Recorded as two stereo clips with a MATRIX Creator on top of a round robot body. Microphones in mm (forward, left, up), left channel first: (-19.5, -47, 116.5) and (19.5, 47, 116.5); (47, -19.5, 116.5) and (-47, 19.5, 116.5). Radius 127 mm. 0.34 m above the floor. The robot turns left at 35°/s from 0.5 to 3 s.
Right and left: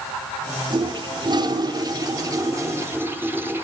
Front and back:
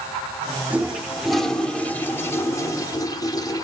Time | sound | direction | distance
0.7 | a toilet flushing | 90° left | 1.2 m